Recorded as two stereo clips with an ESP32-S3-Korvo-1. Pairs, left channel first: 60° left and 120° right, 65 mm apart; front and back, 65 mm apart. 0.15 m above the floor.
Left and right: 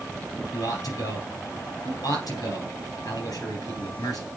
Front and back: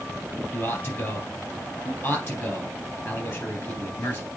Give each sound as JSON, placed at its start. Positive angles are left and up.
{"t": 0.5, "sound": "a man speaking", "azimuth_deg": 45, "distance_m": 3.5}